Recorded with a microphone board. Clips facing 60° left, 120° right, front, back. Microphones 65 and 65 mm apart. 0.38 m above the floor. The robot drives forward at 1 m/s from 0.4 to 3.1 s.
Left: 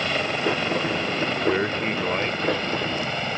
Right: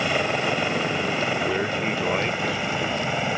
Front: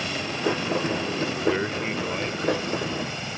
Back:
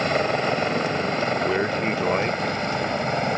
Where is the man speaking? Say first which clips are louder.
Left 2 dB, back 2 dB; 105° left; by 2.6 s 160° left.